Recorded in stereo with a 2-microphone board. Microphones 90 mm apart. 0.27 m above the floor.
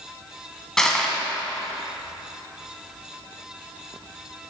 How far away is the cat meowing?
I don't hear a cat meowing.